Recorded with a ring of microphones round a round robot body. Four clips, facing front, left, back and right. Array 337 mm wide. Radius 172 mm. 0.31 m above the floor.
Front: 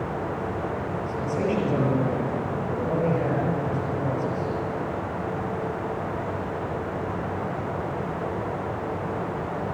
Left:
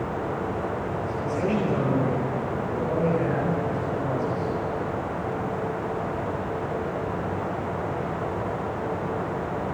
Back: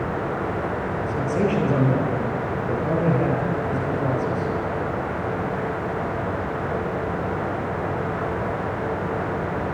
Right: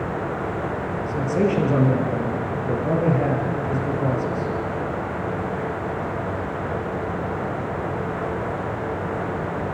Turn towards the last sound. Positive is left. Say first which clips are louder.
# right 6 dB, back 4 dB
turn(degrees=-115)